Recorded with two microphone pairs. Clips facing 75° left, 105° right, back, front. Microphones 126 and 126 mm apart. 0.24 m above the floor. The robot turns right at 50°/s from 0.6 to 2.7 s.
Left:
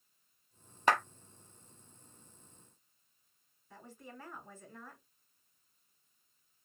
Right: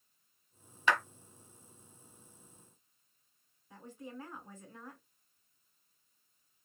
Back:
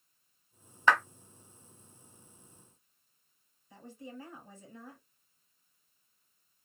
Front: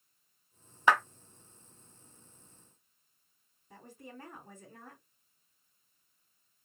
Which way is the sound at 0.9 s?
70° left.